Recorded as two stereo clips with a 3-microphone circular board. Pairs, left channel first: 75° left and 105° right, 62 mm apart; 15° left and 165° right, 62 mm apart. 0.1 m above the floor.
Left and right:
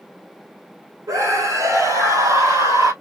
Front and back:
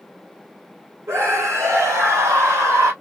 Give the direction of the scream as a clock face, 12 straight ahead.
4 o'clock.